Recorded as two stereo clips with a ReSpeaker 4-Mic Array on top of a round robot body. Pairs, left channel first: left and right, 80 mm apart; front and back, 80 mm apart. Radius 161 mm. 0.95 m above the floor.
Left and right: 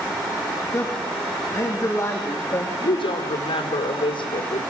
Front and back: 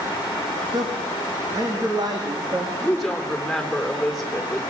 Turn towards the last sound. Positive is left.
turn(degrees=90)